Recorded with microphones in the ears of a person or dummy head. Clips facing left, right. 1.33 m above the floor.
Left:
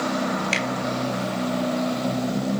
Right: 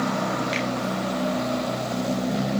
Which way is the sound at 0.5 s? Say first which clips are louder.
Even; 35° left (ahead or behind).